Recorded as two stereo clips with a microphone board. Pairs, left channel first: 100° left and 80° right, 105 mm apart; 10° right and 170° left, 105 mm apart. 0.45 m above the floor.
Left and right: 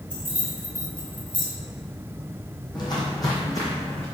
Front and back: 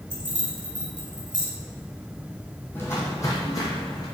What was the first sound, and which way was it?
Keys jangling, 150° right.